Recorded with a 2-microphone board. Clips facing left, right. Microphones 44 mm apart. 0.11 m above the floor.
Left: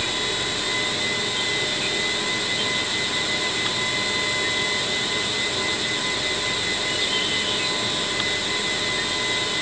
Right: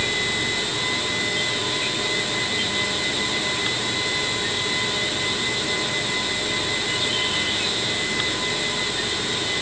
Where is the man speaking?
No man speaking in this recording.